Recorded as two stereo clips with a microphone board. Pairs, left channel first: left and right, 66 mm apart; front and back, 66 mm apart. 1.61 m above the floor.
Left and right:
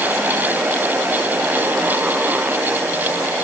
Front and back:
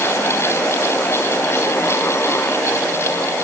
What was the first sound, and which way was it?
Only background noise.